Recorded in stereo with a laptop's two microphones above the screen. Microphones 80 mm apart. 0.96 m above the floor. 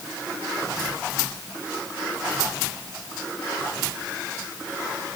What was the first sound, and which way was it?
Only background noise.